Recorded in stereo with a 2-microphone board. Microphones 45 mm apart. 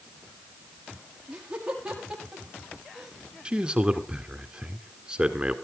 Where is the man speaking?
20° right (ahead or behind), 1.5 m.